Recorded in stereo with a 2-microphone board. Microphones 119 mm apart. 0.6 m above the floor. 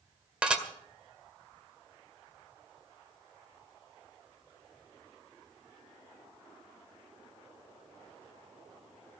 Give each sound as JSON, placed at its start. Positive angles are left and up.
{"t": 0.4, "sound": "dishes clattering", "side_deg": -10, "distance_m": 1.6}